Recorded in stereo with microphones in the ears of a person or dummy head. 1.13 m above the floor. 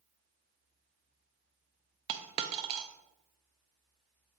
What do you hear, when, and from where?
2.1 s a dropped coin: 35° right (ahead or behind), 0.5 m